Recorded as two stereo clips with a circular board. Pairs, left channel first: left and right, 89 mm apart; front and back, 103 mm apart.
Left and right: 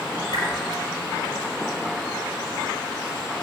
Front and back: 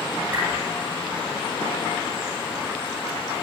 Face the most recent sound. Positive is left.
turn(degrees=115)